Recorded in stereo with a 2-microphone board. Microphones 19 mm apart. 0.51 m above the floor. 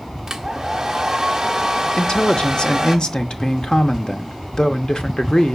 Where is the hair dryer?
25° right (ahead or behind), 1.2 m.